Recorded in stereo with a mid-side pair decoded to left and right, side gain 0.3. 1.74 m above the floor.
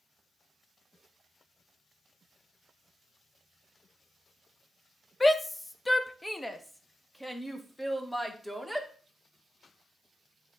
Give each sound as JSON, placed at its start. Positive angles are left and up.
{"t": 5.2, "sound": "a shout", "azimuth_deg": 30, "distance_m": 1.0}